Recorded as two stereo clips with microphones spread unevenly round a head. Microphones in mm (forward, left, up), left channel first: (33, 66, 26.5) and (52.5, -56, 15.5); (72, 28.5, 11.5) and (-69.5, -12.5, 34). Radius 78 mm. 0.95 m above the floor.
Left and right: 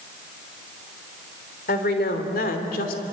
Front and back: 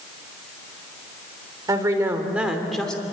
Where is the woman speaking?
130° left, 3 m; by 3.0 s 100° left, 2.5 m.